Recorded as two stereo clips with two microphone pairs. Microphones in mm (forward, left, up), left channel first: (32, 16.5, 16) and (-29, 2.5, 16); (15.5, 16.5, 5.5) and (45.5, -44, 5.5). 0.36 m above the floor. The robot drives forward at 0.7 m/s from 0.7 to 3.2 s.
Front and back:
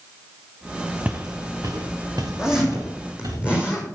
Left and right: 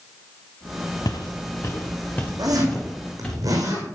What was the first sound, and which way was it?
Footsteps, 125° left.